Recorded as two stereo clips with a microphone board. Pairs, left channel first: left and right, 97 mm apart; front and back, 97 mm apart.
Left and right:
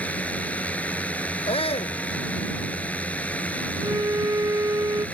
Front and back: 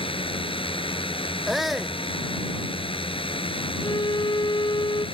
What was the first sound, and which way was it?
A drone, 15° left.